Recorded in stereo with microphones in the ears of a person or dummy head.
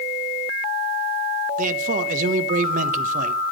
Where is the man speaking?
45° right (ahead or behind), 1.1 m.